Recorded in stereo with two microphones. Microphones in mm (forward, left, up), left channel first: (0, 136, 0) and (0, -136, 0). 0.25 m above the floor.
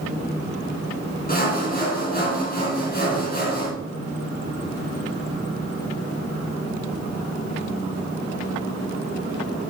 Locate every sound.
1.3 s sawing: 35° left (ahead or behind), 2.5 m